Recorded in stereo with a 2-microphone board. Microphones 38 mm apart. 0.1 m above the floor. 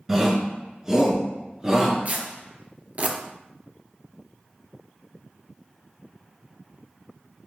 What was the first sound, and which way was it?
A shout, 10° right (ahead or behind).